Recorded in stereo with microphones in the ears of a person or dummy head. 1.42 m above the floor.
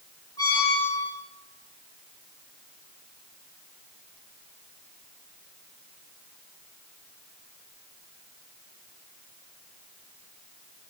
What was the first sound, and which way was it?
A squeak, 20° left (ahead or behind).